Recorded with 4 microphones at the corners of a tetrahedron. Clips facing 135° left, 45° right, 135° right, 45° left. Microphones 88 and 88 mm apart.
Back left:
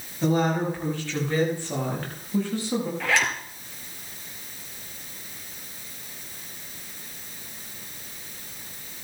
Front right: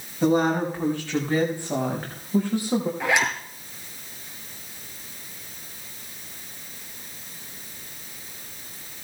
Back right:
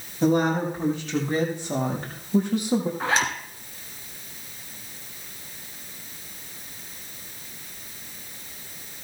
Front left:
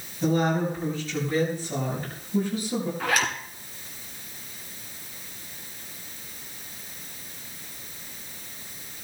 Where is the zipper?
100° right, 1.5 m.